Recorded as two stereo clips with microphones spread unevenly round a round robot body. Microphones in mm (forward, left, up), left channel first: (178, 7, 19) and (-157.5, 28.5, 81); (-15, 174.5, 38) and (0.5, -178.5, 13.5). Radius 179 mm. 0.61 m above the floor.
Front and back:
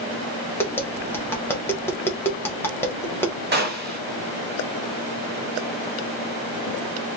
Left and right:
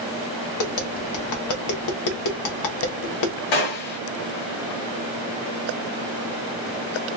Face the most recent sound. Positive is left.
turn(degrees=115)